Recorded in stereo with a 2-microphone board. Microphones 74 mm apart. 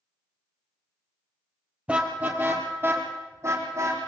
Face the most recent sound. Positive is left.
turn(degrees=-45)  # may be behind; listen again after turning